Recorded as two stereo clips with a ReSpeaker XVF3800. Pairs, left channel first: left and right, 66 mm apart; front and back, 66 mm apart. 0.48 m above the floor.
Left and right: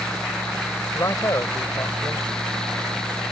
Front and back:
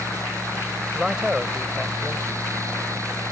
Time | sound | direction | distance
0.9 | a man speaking | 100° left | ?